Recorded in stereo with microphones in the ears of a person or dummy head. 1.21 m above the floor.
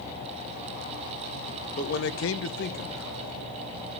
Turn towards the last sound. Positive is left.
turn(degrees=25)  # may be behind; listen again after turning